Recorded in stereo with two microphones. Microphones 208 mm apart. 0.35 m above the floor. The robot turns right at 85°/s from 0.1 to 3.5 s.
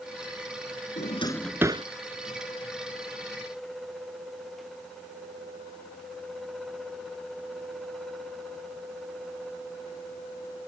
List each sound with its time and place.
1.0 s a drawer: 45° left (ahead or behind); by 1.9 s 30° right (ahead or behind)